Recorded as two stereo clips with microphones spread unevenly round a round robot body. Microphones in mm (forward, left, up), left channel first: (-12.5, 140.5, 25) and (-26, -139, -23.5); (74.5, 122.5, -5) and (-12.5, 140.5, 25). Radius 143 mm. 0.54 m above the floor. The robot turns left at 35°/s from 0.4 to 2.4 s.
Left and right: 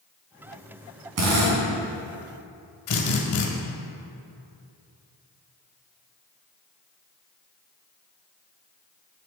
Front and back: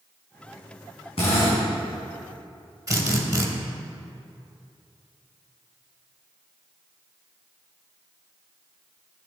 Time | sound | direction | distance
1.2 | a drill | 55° right | 2.5 m
2.9 | a drill | 110° left | 1.9 m